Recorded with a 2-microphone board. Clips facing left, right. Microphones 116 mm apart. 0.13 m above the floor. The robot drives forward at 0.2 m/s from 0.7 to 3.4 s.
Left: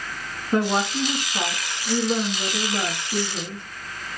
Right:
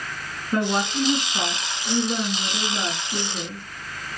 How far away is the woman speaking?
About 1.2 m.